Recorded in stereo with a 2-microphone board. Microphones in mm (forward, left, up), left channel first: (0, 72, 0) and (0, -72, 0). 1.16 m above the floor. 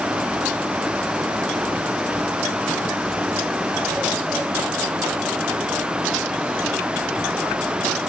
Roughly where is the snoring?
I don't hear snoring.